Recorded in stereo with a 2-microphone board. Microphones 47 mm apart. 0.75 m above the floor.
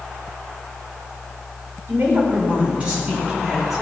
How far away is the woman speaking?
About 3.5 m.